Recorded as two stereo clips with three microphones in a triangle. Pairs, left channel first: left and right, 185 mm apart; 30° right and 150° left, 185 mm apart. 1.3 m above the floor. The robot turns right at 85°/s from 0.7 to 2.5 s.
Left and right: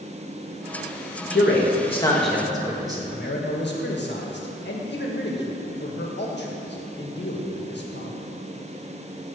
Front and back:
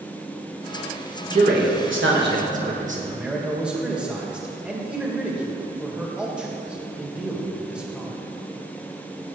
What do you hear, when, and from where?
1.3 s a man speaking: 100° left, 1.6 m; by 3.0 s 160° right, 1.6 m
3.1 s a man speaking: 65° left, 1.7 m